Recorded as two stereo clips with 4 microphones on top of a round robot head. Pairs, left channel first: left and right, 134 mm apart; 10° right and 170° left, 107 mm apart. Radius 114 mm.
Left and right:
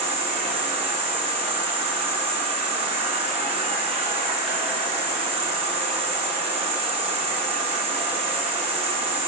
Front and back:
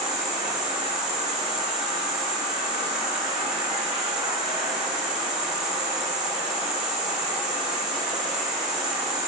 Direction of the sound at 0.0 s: 130° right.